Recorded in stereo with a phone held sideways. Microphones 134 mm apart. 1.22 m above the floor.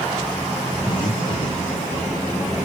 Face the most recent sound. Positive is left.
turn(degrees=35)  # may be behind; listen again after turning